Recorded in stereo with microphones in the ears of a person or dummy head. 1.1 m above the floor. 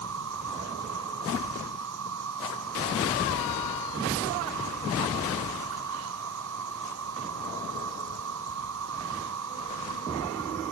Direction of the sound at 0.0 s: 75° right (ahead or behind).